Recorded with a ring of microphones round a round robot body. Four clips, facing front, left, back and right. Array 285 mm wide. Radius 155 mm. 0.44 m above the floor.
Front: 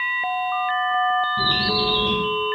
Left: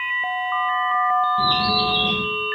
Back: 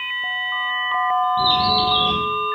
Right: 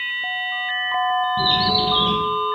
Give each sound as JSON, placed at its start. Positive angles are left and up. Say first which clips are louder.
{"t": 1.4, "sound": "a bird", "louder": "even, back 5 dB", "azimuth_deg": -80, "distance_m": 2.0}